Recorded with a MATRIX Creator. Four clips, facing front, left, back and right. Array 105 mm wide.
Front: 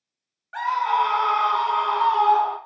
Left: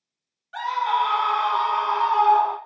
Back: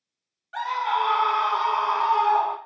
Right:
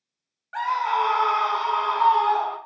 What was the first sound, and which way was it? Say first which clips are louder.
A scream: even, front 3 dB; 60° right.